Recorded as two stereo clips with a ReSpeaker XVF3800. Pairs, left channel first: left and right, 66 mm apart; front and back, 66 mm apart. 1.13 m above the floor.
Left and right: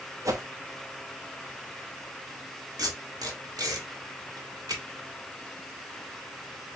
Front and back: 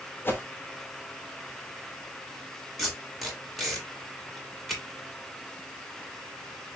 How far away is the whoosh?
About 1.0 m.